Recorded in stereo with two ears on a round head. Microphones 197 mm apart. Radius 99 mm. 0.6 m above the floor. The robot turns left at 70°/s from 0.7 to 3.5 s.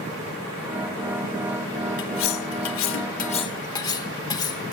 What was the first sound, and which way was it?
Cutlery clinking, 125° left.